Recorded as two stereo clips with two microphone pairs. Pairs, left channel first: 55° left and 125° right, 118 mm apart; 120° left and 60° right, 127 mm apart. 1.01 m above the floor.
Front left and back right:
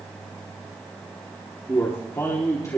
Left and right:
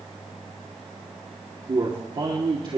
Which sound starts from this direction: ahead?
A man speaking, at 1.7 s.